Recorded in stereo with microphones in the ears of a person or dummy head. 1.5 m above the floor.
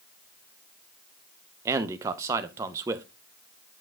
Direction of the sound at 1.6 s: 20° right (ahead or behind).